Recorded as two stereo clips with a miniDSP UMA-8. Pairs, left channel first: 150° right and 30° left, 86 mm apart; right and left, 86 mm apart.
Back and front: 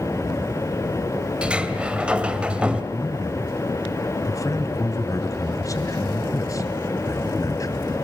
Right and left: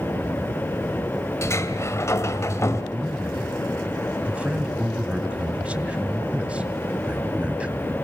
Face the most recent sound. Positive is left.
turn(degrees=165)